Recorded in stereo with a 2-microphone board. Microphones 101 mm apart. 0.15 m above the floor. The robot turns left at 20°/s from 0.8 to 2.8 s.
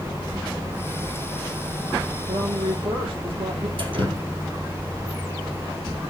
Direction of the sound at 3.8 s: 55° right (ahead or behind).